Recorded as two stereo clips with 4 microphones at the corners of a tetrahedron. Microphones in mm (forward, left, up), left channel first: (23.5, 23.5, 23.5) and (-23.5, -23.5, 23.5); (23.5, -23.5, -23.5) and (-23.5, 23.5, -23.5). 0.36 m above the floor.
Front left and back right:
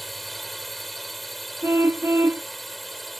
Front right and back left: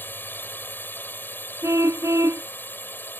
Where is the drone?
45° right.